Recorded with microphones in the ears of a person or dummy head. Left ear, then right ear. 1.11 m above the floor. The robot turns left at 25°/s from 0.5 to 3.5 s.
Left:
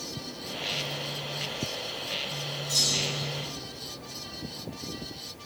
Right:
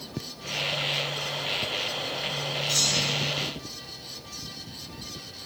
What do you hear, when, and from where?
2.7 s a clunk: 15° right (ahead or behind), 1.3 m; by 3.2 s 5° right (ahead or behind), 1.3 m